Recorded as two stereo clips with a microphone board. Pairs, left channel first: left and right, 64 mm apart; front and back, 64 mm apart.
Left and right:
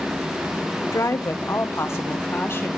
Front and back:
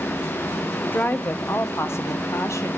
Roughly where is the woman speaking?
Ahead left.